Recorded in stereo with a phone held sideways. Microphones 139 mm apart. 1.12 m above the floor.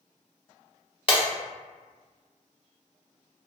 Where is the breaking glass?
40° left (ahead or behind), 0.9 m.